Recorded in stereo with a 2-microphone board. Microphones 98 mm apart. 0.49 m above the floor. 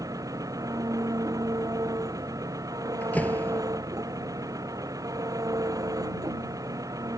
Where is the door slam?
15° left (ahead or behind).